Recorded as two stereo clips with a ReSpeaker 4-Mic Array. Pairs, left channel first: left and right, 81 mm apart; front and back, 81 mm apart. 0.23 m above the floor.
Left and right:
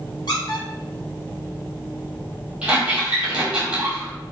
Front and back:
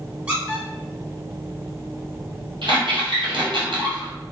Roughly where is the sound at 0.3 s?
Left.